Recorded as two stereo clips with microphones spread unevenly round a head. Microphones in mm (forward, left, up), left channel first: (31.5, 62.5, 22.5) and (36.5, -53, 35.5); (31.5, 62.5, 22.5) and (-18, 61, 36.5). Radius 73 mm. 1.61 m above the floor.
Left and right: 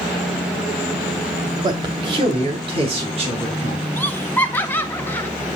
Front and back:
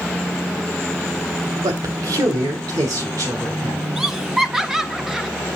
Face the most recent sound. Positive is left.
turn(degrees=165)